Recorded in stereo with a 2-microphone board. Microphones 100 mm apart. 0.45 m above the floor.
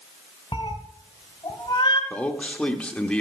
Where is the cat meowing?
45° left (ahead or behind), 1.3 m.